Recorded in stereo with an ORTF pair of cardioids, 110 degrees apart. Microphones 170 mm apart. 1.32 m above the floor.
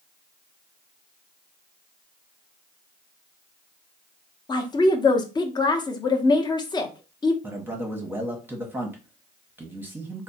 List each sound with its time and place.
4.5 s a woman speaking: 25° left, 0.9 m
7.4 s a man speaking: 10° right, 0.9 m